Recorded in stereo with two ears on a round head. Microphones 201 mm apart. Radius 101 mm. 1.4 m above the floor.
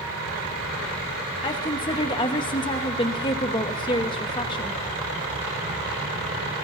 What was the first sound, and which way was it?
A woman speaking, 20° left (ahead or behind).